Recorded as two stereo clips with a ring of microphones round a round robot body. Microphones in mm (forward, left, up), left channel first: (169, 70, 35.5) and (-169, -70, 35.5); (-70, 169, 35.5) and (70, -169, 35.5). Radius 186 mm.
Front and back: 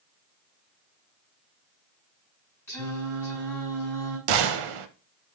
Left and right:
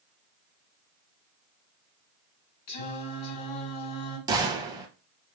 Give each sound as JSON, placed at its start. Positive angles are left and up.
{"t": 2.7, "sound": "singing", "azimuth_deg": 105, "distance_m": 3.5}
{"t": 4.3, "sound": "a gunshot", "azimuth_deg": -145, "distance_m": 0.5}